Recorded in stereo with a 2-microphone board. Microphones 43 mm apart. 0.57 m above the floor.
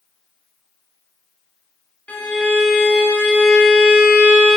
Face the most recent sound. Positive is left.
turn(degrees=35)  # may be behind; listen again after turning